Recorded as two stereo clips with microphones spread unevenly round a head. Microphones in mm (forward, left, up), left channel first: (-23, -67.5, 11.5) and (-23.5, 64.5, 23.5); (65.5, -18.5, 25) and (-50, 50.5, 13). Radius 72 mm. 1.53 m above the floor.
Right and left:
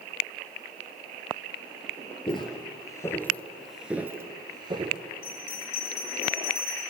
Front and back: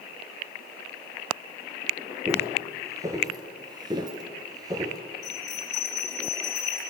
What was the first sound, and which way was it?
Footsteps, 135° right.